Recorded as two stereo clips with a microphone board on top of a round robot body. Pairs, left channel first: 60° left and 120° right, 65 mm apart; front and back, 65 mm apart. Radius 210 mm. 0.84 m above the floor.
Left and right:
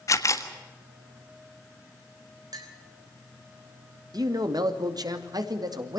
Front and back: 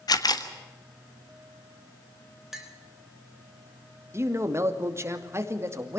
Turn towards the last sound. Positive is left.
turn(degrees=-135)